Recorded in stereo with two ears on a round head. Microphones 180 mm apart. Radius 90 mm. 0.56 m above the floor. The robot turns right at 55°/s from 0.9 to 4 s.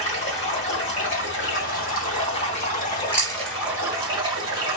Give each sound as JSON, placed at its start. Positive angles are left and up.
{"t": 0.0, "sound": "running water", "azimuth_deg": 35, "distance_m": 1.5}
{"t": 3.1, "sound": "chewing", "side_deg": -10, "distance_m": 1.0}